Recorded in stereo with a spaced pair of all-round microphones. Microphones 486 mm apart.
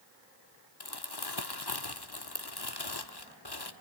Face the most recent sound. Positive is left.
turn(degrees=50)  # may be behind; listen again after turning